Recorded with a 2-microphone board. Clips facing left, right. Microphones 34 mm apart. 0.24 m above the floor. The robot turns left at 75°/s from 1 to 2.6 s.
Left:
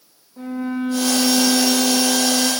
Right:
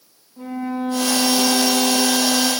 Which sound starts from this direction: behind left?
A violin, at 0.4 s.